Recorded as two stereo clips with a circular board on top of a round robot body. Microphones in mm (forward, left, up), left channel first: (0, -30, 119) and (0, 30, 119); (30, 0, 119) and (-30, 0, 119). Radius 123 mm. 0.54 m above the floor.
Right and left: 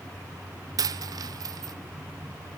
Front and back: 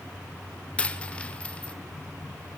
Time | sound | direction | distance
0.8 | a dropped coin | 70° left | 0.5 m